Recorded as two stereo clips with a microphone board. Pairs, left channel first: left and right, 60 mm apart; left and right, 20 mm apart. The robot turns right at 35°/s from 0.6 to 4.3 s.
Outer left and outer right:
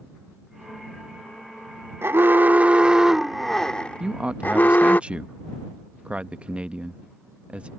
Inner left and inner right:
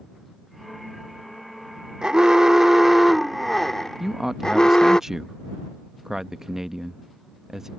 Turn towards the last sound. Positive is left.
turn(degrees=-20)  # may be behind; listen again after turning